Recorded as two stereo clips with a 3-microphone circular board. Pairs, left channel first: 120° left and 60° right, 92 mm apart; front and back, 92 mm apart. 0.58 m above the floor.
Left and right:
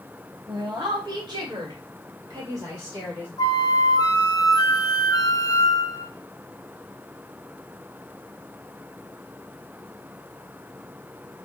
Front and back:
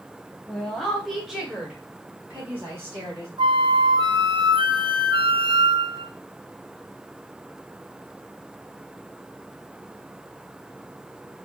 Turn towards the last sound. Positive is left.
turn(degrees=165)